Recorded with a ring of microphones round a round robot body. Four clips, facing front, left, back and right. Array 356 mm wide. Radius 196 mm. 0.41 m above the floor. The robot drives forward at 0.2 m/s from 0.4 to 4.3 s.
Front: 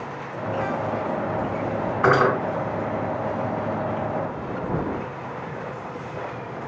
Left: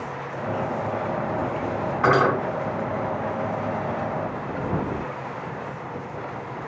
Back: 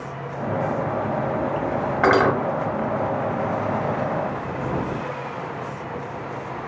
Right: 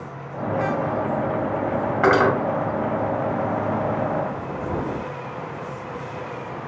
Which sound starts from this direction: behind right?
Cutlery clinking, at 2.0 s.